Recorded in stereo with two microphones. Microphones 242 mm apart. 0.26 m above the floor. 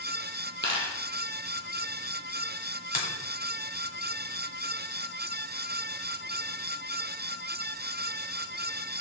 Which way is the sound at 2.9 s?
35° left (ahead or behind).